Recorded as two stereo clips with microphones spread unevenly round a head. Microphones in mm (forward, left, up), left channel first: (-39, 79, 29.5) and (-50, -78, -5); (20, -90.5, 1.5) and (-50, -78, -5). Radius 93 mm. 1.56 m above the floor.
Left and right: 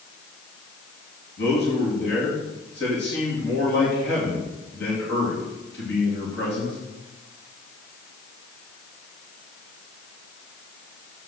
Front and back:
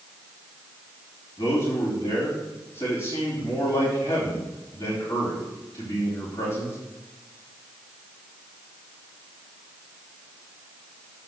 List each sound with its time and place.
1.4 s a man speaking: 50° left, 3 m